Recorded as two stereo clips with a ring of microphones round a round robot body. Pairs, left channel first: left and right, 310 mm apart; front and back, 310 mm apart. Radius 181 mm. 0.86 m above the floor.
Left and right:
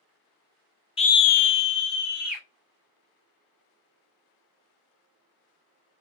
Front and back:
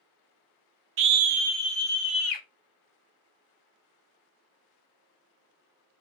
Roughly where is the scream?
Behind.